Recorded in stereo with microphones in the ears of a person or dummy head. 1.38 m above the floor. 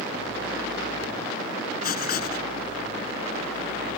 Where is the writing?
55° left (ahead or behind).